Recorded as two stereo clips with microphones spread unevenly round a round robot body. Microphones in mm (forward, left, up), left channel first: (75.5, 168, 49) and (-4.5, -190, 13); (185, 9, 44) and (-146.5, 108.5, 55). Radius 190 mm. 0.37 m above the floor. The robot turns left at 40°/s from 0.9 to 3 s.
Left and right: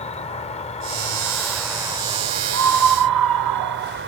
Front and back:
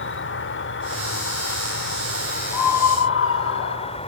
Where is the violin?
No violin in this recording.